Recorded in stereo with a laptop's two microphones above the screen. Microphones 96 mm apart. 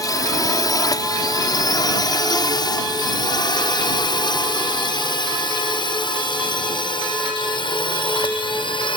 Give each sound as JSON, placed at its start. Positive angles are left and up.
{"t": 0.0, "sound": "a drone", "side_deg": 40}